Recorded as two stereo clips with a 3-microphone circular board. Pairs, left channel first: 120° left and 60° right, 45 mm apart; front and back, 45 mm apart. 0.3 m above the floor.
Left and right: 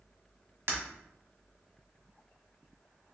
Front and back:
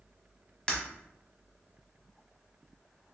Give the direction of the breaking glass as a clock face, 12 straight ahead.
2 o'clock.